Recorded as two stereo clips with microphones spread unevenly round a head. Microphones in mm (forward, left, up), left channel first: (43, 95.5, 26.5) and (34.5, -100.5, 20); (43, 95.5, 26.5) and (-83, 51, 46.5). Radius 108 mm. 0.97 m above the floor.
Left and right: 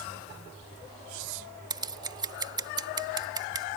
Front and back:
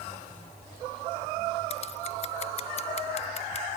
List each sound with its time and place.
1.7 s scissors: 25° right